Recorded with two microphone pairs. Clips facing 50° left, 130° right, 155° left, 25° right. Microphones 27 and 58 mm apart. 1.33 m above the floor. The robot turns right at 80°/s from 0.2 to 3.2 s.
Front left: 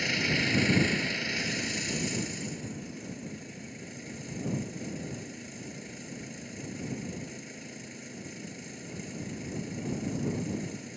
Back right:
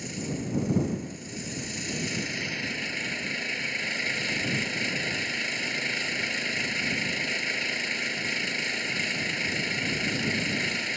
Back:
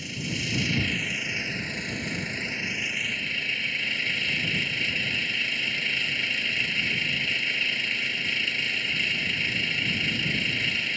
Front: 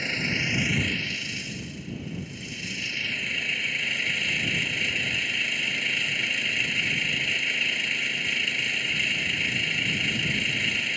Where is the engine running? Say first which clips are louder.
Front left 7 dB, front 5 dB; 5° left; by 11.0 s 115° right.